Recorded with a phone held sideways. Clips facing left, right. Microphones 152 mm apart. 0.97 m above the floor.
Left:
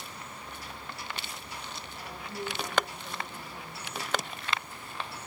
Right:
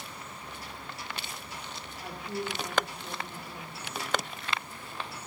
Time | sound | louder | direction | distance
2.0 | a woman speaking | right 3 dB | 65° right (ahead or behind) | 2.5 m